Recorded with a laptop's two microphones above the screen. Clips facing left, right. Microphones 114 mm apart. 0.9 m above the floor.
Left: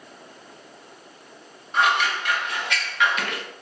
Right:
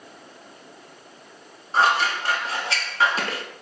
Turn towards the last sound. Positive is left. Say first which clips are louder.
# right 1 dB
turn(degrees=-30)  # may be behind; listen again after turning